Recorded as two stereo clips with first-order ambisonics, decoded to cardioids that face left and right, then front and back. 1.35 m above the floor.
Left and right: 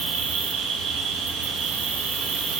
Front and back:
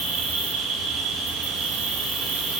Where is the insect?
125° right, 0.8 m.